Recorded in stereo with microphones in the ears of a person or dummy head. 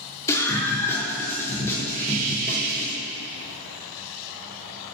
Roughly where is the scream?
Centre.